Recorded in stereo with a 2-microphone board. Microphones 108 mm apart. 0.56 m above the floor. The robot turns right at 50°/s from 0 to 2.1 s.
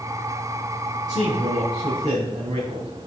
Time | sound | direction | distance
1.1 | a man speaking | 145° right | 3.5 m